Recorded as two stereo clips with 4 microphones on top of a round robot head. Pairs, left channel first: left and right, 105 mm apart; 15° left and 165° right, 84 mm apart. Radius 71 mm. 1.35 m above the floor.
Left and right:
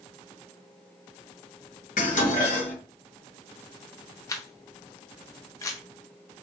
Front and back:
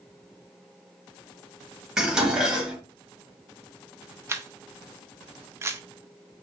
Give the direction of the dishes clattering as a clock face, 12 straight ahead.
8 o'clock.